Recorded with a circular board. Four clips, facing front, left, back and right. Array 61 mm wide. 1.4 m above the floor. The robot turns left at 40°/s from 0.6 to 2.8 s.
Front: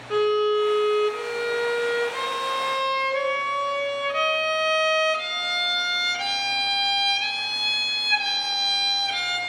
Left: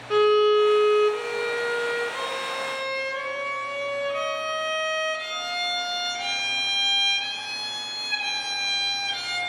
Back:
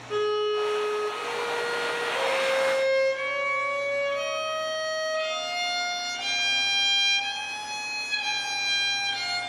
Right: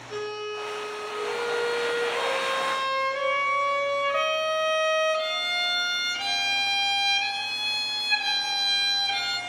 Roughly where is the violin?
Left.